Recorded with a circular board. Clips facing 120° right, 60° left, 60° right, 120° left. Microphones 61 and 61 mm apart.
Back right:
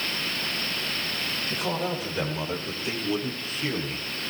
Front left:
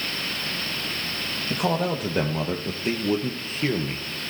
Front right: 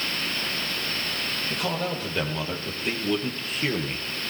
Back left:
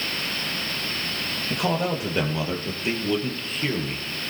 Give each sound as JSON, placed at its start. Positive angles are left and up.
{"t": 1.5, "sound": "a man speaking", "azimuth_deg": 50, "distance_m": 3.5}